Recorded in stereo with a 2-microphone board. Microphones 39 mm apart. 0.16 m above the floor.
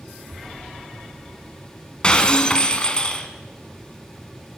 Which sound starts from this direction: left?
Breaking glass, at 2.0 s.